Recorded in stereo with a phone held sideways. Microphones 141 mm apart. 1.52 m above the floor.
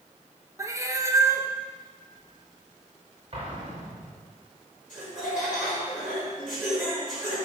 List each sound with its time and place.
0.6 s a cat meowing: 20° right (ahead or behind), 0.7 m
3.3 s an explosion: 45° right (ahead or behind), 2 m
4.9 s laughter: 10° right (ahead or behind), 4.5 m